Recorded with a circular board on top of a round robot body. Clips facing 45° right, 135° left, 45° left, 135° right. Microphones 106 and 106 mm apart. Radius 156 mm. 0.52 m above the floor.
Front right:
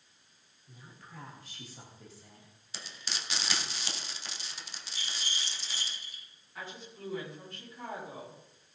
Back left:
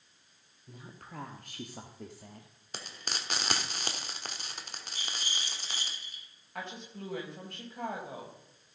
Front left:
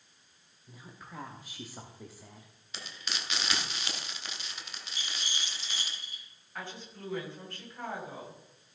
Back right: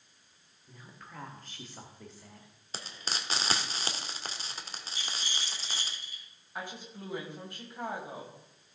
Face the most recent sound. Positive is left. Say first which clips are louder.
# back left 3 dB, back right 2 dB
turn(degrees=150)